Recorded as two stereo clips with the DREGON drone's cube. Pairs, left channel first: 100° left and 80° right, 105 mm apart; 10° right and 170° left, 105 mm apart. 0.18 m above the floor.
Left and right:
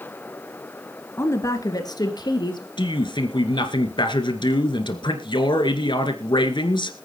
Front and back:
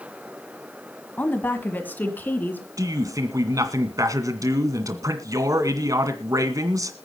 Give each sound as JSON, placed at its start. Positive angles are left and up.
{"t": 1.2, "sound": "a woman speaking", "azimuth_deg": 55, "distance_m": 1.6}
{"t": 2.8, "sound": "a man speaking", "azimuth_deg": 120, "distance_m": 2.0}